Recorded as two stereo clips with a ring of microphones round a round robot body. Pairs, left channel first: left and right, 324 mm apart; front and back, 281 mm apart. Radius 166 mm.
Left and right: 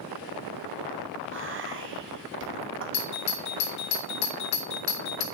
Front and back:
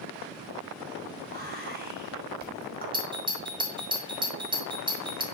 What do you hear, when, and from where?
1.3 s whispering: 130° right, 1.4 m
2.9 s a doorbell: 110° left, 1.7 m